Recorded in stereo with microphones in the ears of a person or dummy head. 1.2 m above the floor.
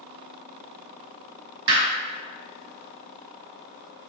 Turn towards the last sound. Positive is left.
turn(degrees=-50)  # may be behind; listen again after turning